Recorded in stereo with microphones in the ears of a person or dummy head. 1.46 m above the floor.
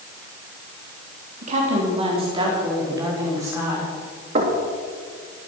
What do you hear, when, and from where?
1.4 s a woman speaking: 45° right (ahead or behind), 3.5 m; by 3.9 s 15° right (ahead or behind), 6 m
4.3 s knocking: 40° right (ahead or behind), 2.5 m